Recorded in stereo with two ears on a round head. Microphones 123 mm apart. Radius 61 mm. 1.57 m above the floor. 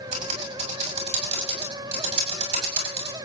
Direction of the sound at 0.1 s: 55° right (ahead or behind).